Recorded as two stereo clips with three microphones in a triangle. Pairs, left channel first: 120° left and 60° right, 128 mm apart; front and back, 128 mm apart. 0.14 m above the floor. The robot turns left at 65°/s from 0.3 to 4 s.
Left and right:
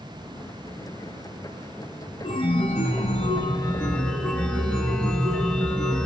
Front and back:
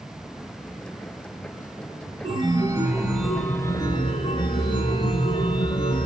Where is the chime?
155° left, 0.6 m; by 6.1 s 40° left, 0.6 m.